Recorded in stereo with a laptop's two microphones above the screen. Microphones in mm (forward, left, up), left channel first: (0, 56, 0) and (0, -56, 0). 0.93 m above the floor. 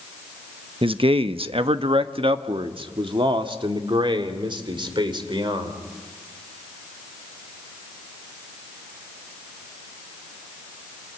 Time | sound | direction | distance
0.8 | a man speaking | 55° right (ahead or behind) | 1.0 m